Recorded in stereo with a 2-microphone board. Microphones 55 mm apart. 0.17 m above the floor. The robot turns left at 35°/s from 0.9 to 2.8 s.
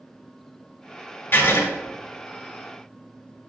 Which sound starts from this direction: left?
Writing, at 1.3 s.